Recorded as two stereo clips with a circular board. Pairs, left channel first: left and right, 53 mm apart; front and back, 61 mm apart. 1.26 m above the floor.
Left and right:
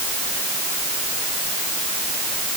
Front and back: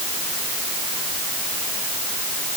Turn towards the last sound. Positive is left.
No sound to turn to.